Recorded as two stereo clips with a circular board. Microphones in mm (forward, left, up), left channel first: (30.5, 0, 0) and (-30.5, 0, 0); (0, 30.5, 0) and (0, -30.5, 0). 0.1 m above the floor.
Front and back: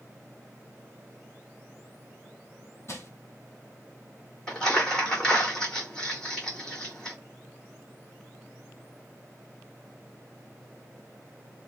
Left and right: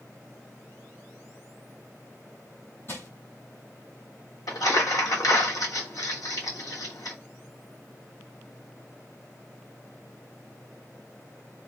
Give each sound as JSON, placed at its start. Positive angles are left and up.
{"t": 2.9, "sound": "crushing", "azimuth_deg": 40, "distance_m": 0.8}
{"t": 4.5, "sound": "crumpling", "azimuth_deg": 80, "distance_m": 0.9}